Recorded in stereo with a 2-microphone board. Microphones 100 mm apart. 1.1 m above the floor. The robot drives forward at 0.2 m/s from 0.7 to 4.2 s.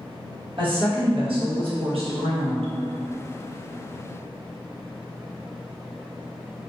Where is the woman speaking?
60° right (ahead or behind), 1.1 m; by 2.7 s 80° right, 1.0 m.